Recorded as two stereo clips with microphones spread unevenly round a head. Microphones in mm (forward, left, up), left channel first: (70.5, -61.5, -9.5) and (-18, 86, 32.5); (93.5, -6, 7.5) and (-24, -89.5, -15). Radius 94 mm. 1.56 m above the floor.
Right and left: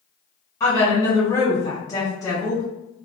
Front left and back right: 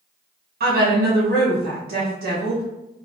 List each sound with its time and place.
0.6 s a woman speaking: 135° right, 1.7 m